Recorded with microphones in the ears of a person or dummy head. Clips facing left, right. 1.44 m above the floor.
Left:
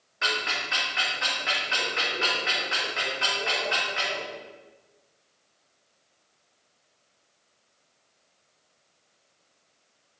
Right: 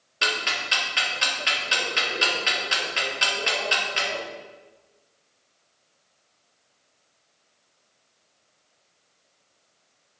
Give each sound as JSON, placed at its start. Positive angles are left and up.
{"t": 0.2, "sound": "ticking", "side_deg": -50, "distance_m": 1.6}